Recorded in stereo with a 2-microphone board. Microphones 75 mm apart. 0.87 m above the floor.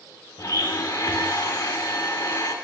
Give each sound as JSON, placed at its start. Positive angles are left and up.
{"t": 0.4, "sound": "a blender", "side_deg": 50, "distance_m": 0.8}